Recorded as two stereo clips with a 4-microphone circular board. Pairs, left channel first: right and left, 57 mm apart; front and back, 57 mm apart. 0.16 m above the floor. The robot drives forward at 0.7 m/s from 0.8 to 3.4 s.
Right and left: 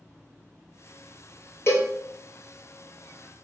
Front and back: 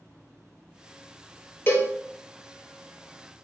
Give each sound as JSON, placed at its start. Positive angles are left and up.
{"t": 1.7, "sound": "a cowbell", "azimuth_deg": -45, "distance_m": 0.9}